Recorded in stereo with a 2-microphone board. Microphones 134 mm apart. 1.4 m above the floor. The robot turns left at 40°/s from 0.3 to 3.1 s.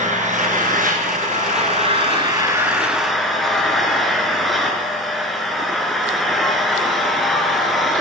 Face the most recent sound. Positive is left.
turn(degrees=180)